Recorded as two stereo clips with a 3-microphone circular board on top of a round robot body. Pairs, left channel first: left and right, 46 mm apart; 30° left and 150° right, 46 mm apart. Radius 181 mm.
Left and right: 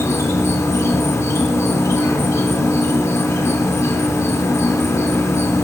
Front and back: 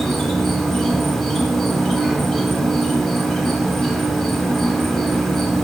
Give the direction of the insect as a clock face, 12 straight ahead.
8 o'clock.